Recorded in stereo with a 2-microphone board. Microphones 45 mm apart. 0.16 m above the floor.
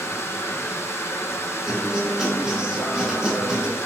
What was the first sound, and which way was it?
Running water, 70° left (ahead or behind).